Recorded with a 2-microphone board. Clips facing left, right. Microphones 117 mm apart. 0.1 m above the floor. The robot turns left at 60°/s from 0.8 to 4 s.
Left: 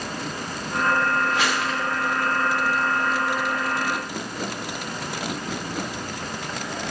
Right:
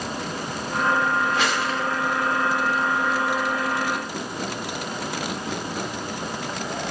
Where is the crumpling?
15° left (ahead or behind), 6 m; by 1.8 s 10° right (ahead or behind), 6 m.